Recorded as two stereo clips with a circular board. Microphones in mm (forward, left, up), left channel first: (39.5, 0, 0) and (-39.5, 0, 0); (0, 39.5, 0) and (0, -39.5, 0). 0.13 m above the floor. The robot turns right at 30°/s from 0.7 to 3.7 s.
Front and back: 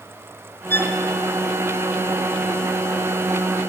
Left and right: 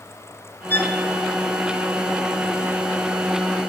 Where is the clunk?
No clunk in this recording.